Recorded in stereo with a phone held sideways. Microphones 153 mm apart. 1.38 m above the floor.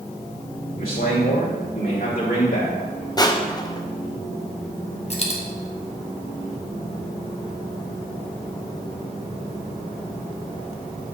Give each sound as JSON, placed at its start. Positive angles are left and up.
{"t": 0.8, "sound": "a man speaking", "side_deg": 70, "distance_m": 1.4}
{"t": 3.2, "sound": "crushing", "side_deg": 25, "distance_m": 0.6}
{"t": 5.1, "sound": "a dropped coin", "side_deg": 40, "distance_m": 1.1}